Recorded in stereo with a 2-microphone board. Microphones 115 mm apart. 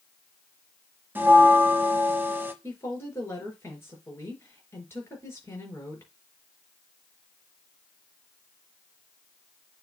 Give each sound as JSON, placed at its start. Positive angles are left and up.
{"t": 1.1, "sound": "a bell", "side_deg": -15, "distance_m": 1.1}
{"t": 2.6, "sound": "a woman speaking", "side_deg": 20, "distance_m": 4.0}